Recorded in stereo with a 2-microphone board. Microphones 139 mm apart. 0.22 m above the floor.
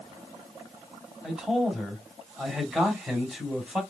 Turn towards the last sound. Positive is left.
turn(degrees=-5)  # may be behind; listen again after turning